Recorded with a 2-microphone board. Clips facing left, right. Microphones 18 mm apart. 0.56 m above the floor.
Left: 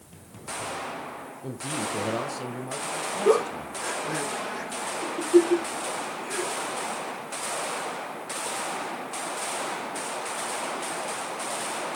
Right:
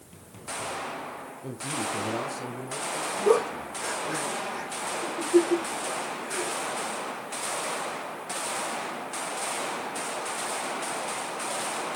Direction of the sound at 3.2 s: 30° left (ahead or behind).